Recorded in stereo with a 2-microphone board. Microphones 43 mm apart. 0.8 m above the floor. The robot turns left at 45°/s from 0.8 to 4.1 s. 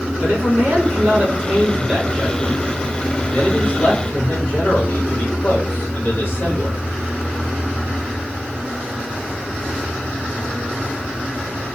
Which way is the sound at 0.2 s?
125° right.